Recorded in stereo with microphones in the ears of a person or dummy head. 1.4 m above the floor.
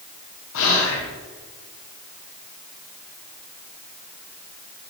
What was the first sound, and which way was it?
Whispering, 75° left (ahead or behind).